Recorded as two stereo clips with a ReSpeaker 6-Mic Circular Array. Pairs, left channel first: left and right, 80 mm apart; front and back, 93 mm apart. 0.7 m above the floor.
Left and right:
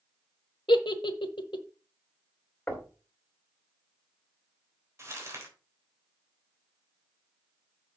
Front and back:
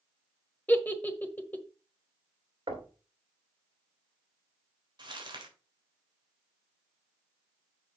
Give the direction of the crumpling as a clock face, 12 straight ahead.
5 o'clock.